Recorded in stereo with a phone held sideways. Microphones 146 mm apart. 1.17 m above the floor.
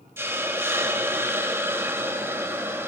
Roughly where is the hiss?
Centre.